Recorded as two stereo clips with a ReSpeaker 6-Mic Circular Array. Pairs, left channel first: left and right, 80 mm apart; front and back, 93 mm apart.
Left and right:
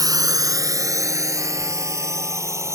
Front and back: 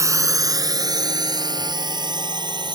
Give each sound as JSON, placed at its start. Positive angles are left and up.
{"t": 0.0, "sound": "a drone", "azimuth_deg": -125}